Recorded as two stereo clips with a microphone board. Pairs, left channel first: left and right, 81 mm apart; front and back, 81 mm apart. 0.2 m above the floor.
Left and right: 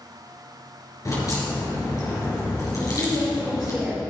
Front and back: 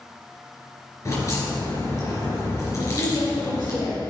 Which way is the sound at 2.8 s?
10° right.